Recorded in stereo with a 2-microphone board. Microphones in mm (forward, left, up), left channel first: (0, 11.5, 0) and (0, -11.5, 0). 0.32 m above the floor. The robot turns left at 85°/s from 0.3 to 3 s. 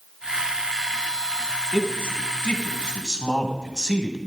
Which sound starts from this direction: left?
A man speaking, at 1.7 s.